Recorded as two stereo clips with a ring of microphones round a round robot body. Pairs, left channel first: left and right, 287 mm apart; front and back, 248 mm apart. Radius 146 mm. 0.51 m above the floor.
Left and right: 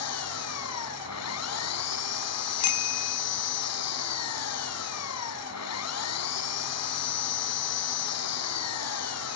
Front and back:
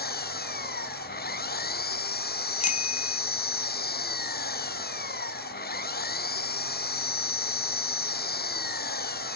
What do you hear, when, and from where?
0.0 s an engine running: 50° left
2.6 s a bicycle bell: 60° left